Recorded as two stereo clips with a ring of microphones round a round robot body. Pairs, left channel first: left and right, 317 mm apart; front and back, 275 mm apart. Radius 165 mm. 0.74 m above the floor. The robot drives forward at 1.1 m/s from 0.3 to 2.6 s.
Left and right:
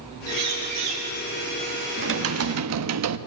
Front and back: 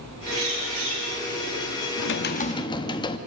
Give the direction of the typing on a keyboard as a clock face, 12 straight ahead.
1 o'clock.